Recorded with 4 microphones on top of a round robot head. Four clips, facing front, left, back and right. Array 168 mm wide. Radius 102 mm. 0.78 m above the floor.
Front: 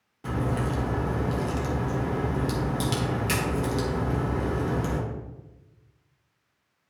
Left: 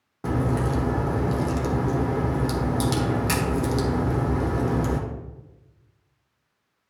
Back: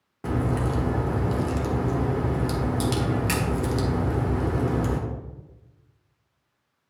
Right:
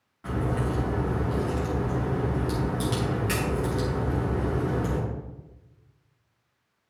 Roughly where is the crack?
Behind left.